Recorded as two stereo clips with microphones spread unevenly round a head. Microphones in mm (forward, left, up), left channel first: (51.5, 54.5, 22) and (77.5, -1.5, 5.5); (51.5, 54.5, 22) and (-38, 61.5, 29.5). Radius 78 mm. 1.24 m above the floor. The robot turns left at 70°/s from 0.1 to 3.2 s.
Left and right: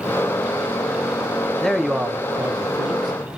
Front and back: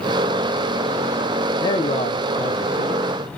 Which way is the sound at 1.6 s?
40° left.